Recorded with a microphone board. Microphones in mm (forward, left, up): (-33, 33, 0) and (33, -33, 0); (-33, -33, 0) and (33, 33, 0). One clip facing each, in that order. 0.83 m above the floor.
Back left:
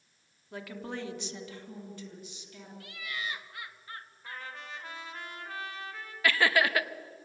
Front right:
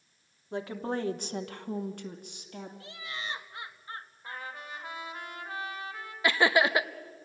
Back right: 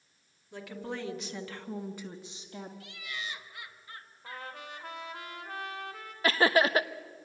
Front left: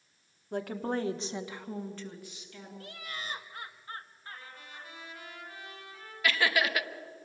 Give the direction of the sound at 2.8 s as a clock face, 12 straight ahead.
12 o'clock.